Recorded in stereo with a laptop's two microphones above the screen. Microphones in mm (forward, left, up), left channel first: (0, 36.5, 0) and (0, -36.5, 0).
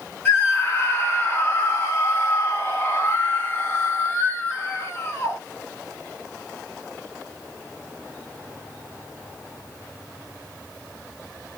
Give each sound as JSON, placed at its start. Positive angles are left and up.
{"t": 0.2, "sound": "a scream", "side_deg": 25, "distance_m": 1.5}